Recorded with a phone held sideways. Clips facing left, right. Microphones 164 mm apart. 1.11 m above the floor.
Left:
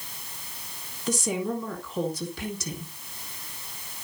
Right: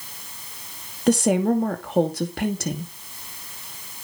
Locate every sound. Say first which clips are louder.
1.1 s a woman speaking: right 10 dB; 60° right (ahead or behind), 2.5 m